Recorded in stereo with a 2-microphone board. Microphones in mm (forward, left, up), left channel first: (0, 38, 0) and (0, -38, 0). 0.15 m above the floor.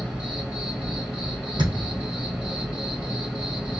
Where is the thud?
65° right (ahead or behind), 2.5 m.